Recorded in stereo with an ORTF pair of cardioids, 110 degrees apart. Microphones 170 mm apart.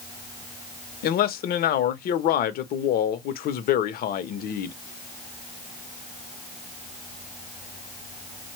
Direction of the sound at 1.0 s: 60° left.